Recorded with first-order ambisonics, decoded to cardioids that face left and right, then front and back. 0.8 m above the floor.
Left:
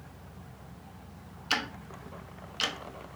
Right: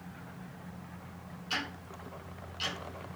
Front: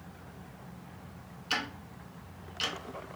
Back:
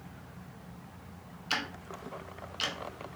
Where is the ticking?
100° left, 0.5 m.